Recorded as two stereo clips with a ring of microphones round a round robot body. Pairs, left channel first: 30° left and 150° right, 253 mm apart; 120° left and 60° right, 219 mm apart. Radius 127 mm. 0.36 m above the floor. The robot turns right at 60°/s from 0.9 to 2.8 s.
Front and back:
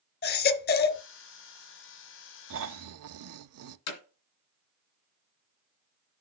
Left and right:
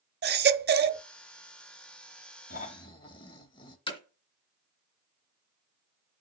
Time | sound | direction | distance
0.2 | a baby crying | 20° right | 0.7 m
2.5 | snoring | 170° left | 0.5 m
3.9 | hammering | 55° left | 2.5 m